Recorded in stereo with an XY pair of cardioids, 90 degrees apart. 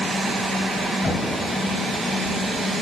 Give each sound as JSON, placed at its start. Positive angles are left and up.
{"t": 1.0, "sound": "knocking", "azimuth_deg": 30, "distance_m": 3.0}